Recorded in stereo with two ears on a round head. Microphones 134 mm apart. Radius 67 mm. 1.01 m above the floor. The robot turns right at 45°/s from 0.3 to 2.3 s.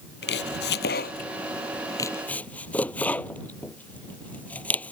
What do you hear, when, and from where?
0.2 s chopping: 80° left; by 4.9 s 10° left (ahead or behind)